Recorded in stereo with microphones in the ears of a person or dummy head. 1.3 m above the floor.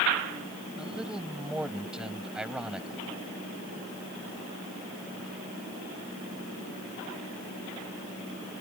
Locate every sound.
0.8 s a man speaking: 5° right (ahead or behind)